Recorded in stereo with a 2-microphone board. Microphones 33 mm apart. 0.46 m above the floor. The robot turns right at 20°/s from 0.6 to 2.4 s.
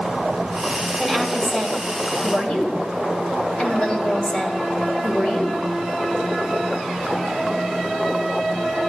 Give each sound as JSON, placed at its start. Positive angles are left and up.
{"t": 1.0, "sound": "a woman speaking", "side_deg": 15, "distance_m": 2.0}